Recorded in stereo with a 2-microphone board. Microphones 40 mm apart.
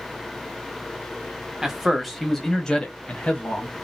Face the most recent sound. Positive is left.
turn(degrees=40)  # may be behind; listen again after turning